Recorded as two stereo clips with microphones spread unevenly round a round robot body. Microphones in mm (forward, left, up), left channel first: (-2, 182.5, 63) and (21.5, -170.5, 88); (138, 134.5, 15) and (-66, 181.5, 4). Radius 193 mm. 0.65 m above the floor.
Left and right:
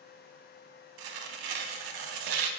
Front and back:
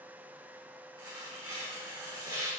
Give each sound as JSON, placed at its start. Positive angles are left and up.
{"t": 1.0, "sound": "tearing paper", "azimuth_deg": -115, "distance_m": 0.7}